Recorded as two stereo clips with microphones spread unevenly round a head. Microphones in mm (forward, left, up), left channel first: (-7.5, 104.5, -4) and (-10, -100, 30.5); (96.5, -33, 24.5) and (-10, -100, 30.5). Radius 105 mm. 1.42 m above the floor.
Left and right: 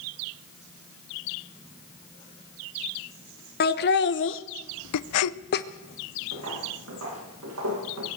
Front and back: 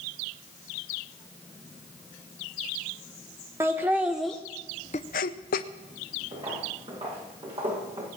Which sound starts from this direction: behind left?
Laughter, at 3.6 s.